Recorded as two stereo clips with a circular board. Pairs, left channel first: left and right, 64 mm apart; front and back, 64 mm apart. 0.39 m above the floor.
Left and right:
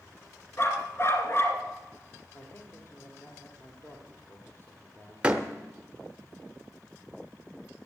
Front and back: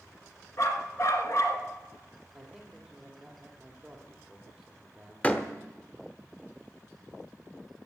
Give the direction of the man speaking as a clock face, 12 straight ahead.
9 o'clock.